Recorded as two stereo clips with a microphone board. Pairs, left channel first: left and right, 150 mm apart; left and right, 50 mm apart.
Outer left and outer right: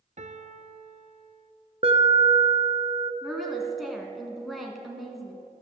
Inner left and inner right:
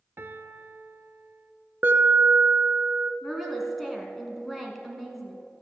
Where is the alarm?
45° right (ahead or behind), 1.0 m.